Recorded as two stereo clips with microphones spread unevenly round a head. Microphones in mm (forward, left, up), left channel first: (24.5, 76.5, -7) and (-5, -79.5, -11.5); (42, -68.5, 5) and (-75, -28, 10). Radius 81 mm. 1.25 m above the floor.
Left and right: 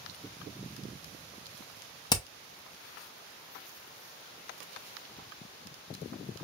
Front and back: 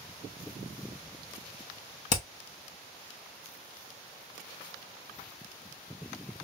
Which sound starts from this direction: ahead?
Hammering, at 2.1 s.